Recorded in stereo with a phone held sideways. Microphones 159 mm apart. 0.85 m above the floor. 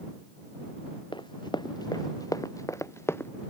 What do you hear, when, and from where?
1.1 s running footsteps: 30° left (ahead or behind); by 3.3 s 15° left (ahead or behind)